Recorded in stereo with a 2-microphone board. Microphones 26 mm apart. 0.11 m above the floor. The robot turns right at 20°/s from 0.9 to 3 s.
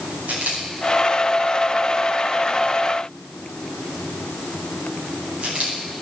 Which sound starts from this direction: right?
A camera shutter, at 0.3 s.